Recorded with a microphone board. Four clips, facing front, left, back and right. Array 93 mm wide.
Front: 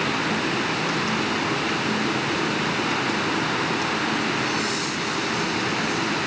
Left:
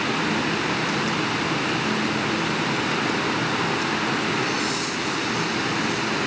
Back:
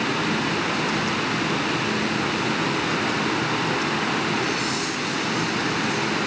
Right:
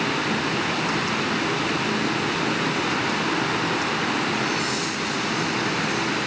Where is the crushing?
I don't hear crushing.